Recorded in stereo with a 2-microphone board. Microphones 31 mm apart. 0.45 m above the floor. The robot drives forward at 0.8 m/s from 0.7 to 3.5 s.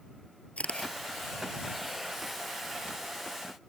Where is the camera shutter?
45° left (ahead or behind).